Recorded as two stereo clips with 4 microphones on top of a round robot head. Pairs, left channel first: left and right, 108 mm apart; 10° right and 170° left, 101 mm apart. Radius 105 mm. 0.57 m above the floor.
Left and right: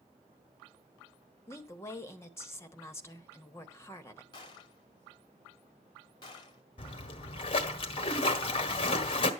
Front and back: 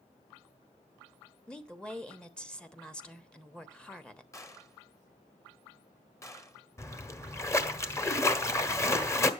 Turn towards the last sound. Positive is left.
turn(degrees=50)